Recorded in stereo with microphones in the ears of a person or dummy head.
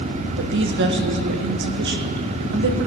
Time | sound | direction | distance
0.4 | a woman speaking | 65° right (ahead or behind) | 1.0 m